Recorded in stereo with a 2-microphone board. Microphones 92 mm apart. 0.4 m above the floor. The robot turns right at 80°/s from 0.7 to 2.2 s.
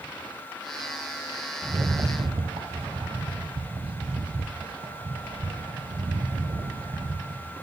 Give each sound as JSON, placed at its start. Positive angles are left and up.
{"t": 1.6, "sound": "a rattle", "azimuth_deg": -150, "distance_m": 0.6}